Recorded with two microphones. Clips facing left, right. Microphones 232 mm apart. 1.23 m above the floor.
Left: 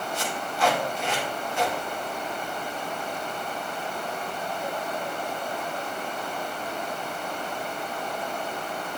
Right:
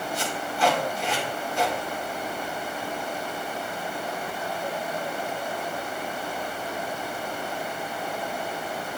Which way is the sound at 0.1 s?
35° right (ahead or behind).